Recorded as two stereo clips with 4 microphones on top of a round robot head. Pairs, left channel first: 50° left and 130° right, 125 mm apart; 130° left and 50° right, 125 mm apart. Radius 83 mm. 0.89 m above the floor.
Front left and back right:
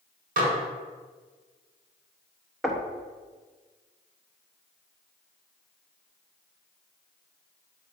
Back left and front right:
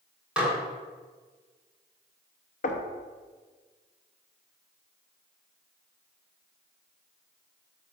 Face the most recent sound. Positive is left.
turn(degrees=140)